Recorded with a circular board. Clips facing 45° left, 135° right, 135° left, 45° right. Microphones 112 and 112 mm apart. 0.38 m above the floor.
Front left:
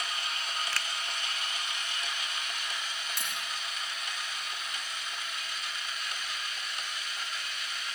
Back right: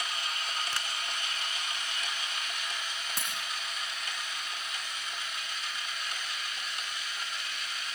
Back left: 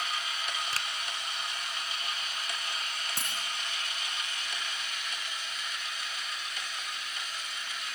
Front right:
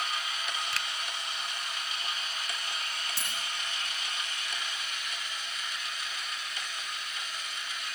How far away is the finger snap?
About 0.7 m.